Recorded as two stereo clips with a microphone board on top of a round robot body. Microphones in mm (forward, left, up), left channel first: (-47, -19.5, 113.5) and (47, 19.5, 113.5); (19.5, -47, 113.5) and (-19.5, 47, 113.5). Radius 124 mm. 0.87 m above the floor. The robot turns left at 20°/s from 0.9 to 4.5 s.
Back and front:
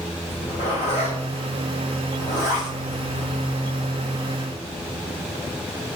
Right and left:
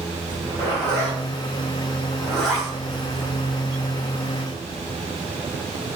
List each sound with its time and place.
0.3 s a zipper: 125° right, 1.4 m; by 3.9 s 175° left, 1.4 m